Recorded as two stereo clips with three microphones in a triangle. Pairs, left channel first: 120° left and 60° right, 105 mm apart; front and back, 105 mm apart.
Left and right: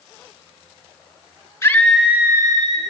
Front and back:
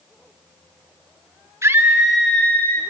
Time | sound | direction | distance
1.6 | a scream | 150° left | 1.2 m